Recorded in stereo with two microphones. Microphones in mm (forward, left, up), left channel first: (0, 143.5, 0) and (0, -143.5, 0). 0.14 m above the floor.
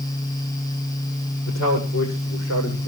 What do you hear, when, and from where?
1.5 s a man speaking: 45° left (ahead or behind), 7 m